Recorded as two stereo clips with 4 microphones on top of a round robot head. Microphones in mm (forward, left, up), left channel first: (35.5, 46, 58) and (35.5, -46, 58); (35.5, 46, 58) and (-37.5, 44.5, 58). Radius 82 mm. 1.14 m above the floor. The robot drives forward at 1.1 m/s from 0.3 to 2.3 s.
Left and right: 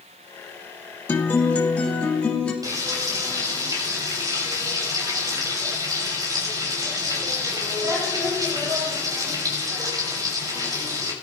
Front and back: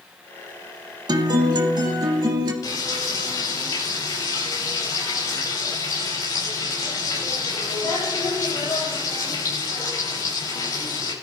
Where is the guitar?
155° left, 1.2 m; by 2.5 s 170° left, 2.5 m.